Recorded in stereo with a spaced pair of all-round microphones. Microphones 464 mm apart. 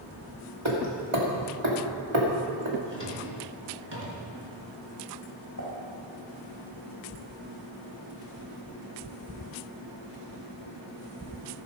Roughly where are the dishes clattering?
Left.